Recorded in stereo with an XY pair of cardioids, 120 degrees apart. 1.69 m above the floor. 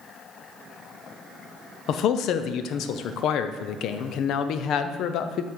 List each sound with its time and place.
1.9 s a man speaking: 65° left, 0.7 m